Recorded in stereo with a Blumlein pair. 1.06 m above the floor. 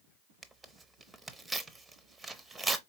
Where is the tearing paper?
10° right, 0.5 m.